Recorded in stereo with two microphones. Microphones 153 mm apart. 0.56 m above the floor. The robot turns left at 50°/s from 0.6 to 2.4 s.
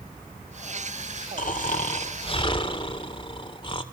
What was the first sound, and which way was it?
Snoring, 90° left.